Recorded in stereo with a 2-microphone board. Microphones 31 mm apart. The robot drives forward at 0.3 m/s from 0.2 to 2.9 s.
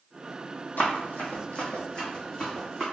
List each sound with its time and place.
0.8 s running footsteps: 70° left (ahead or behind), 0.8 m; by 2.8 s 10° left (ahead or behind), 1.7 m